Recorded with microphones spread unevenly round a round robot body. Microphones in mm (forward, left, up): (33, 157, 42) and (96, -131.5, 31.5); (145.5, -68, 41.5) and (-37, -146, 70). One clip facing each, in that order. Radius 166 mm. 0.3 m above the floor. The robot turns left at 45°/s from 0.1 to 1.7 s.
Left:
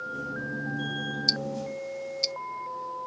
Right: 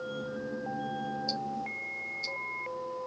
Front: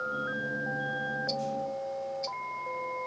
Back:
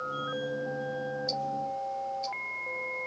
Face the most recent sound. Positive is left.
turn(degrees=105)